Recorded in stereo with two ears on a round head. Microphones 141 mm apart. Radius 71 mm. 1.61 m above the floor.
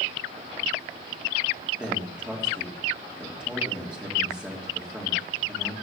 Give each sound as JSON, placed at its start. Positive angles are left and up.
{"t": 1.8, "sound": "a man speaking", "side_deg": -5, "distance_m": 3.0}